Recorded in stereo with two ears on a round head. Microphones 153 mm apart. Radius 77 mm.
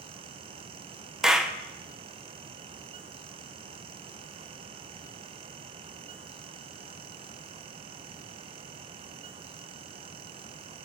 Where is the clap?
5° right (ahead or behind), 0.6 m.